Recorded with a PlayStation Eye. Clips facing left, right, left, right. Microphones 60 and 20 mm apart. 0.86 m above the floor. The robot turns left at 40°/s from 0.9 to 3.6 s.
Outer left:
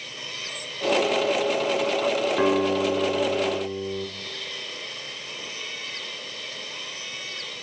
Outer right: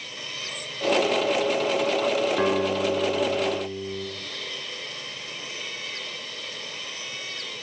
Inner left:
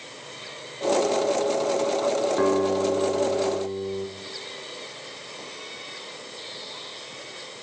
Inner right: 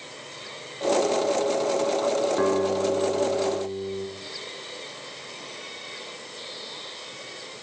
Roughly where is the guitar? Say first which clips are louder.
Outer left 2 dB, inner left 1 dB; behind.